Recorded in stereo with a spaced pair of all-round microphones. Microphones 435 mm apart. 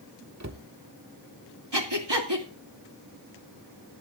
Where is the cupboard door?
40° right (ahead or behind), 1.0 m.